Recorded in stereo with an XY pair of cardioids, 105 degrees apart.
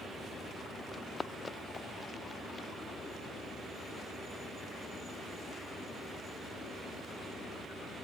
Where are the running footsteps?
20° left; by 2.7 s 25° left.